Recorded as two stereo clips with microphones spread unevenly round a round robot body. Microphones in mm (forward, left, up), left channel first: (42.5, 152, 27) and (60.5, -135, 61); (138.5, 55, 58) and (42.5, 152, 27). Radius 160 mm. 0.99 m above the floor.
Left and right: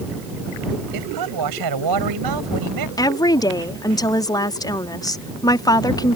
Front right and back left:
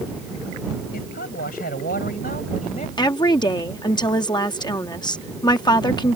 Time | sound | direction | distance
0.9 | a man speaking | 80° right | ?
3.0 | a woman speaking | 15° left | ?